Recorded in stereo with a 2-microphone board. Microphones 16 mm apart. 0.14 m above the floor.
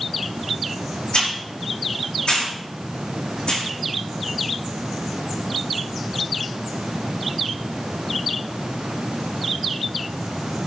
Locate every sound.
1.1 s a hiss: 70° left (ahead or behind), 7 m